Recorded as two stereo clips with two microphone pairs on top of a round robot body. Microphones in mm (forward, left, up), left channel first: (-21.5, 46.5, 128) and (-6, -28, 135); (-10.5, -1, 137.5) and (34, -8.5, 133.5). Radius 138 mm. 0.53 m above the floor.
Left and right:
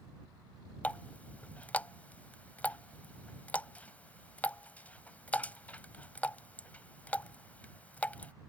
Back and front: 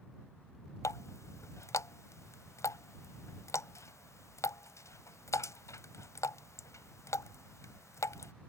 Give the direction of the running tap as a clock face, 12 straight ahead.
6 o'clock.